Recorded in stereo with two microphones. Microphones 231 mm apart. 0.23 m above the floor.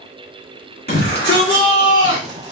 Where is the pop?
I don't hear a pop.